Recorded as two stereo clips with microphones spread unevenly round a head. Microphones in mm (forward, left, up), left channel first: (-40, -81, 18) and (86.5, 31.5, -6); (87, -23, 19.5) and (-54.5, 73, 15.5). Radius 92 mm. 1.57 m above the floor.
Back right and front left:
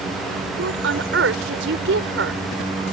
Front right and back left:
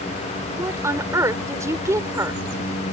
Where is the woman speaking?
70° left.